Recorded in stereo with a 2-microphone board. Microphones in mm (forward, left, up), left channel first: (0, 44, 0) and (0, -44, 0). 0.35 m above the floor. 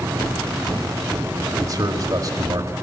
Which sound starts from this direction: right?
A man speaking, at 1.6 s.